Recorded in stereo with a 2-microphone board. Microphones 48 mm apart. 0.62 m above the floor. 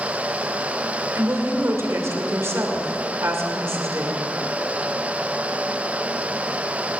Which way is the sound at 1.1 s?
65° right (ahead or behind).